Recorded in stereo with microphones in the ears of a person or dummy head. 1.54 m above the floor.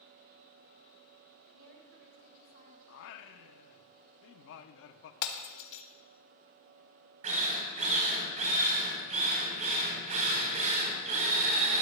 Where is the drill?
40° right (ahead or behind), 3.5 m.